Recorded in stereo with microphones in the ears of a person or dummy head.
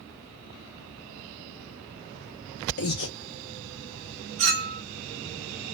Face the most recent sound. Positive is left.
turn(degrees=-35)  # may be behind; listen again after turning